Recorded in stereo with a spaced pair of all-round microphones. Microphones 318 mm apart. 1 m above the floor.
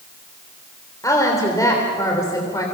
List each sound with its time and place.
1.0 s a woman speaking: 10° left (ahead or behind), 3 m